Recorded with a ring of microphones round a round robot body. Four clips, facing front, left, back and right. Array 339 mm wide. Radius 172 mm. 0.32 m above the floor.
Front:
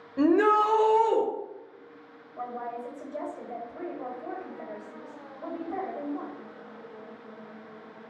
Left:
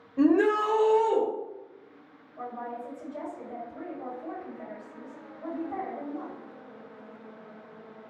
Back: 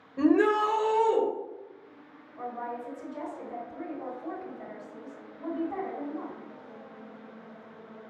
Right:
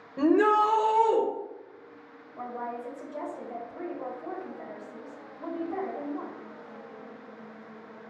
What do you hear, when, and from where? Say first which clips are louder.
0.2 s a shout: even, front 1 dB; 25° right, 0.8 m
2.4 s a woman speaking: right 1 dB, front 1 dB; 20° right, 1.8 m